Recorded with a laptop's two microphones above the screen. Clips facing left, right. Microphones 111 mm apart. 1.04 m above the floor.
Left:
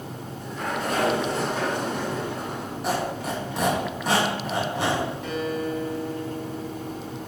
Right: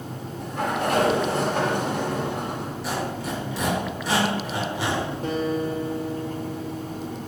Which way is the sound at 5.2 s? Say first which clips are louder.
Right 3 dB; 40° right (ahead or behind).